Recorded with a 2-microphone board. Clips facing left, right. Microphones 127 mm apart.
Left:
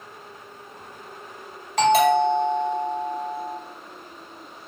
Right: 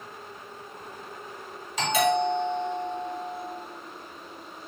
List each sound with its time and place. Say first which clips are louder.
1.8 s a doorbell: left 7 dB; 60° left (ahead or behind), 2.5 m